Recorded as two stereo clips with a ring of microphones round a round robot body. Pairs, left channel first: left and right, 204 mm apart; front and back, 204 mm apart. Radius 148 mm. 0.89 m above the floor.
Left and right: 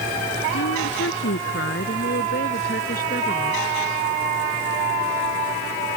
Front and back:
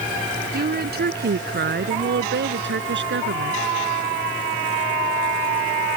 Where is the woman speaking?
140° left; by 3.6 s 155° left.